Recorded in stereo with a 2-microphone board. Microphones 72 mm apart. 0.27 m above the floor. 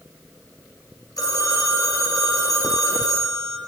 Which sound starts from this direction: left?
A phone ringing, at 1.2 s.